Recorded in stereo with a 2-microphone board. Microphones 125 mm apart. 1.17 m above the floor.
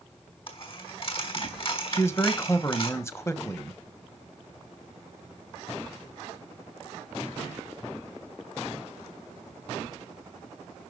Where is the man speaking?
20° left (ahead or behind), 1.2 m.